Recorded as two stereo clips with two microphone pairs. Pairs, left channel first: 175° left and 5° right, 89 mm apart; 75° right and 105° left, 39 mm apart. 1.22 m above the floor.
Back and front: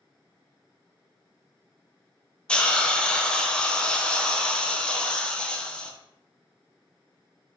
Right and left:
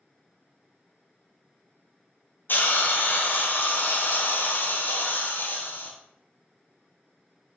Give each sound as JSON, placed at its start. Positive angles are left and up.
{"t": 2.5, "sound": "a hiss", "azimuth_deg": -105, "distance_m": 0.6}